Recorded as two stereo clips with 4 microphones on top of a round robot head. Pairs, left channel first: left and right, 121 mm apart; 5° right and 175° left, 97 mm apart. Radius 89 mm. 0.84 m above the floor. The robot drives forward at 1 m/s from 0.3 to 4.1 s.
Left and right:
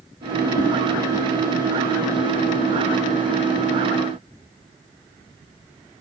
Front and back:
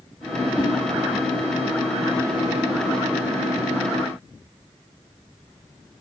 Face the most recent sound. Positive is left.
turn(degrees=110)